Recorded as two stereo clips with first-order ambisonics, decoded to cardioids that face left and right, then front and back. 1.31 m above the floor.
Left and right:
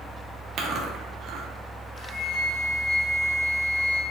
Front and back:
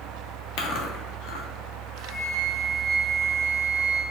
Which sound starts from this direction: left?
A flute, at 2.0 s.